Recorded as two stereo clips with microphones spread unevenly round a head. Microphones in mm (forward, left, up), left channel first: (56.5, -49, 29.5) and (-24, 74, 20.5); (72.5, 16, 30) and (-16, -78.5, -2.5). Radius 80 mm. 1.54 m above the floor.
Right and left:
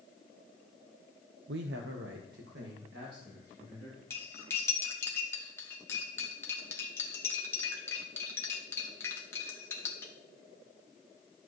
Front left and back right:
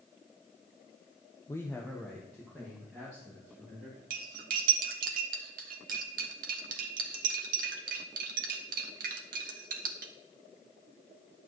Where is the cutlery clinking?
125° right, 1.0 m.